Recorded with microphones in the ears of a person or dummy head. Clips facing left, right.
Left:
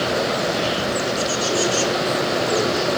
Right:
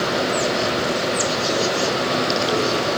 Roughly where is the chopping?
I don't hear chopping.